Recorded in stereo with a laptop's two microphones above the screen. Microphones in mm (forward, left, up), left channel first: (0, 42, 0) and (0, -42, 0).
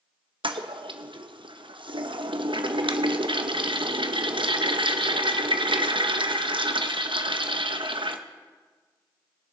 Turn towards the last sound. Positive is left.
turn(degrees=-75)  # may be behind; listen again after turning